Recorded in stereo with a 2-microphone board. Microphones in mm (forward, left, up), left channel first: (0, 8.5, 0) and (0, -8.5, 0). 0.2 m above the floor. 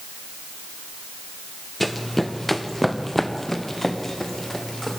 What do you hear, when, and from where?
1.8 s running footsteps: 10° left (ahead or behind), 2.0 m; by 5.0 s 20° left (ahead or behind), 4.5 m